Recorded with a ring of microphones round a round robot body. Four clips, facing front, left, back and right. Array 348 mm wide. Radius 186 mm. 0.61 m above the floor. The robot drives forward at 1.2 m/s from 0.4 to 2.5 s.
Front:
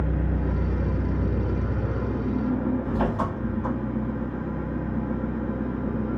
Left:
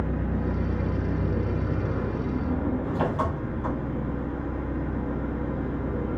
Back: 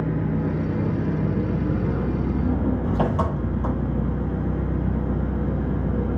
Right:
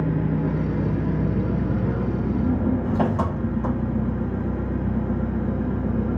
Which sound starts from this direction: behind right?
An engine running, at 0.0 s.